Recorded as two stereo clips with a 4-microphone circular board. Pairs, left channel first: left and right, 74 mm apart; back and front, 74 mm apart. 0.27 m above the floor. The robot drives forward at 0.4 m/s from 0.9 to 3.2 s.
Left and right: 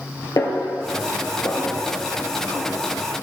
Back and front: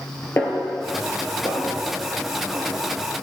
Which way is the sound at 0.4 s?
125° left.